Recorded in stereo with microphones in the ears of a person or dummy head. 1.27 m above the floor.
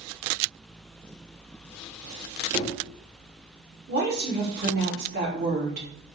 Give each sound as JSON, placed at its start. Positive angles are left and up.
{"t": 2.5, "sound": "knocking", "side_deg": -20, "distance_m": 0.9}
{"t": 3.9, "sound": "a woman speaking", "side_deg": -45, "distance_m": 1.2}